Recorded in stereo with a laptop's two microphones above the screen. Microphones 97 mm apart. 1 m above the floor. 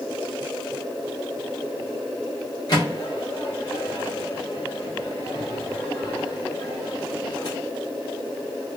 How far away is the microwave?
About 0.8 m.